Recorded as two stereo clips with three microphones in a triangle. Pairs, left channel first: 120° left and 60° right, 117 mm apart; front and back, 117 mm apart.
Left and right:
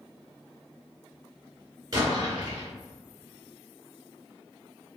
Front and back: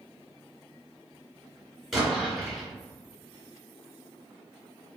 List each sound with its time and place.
1.9 s an explosion: 95° right, 1.4 m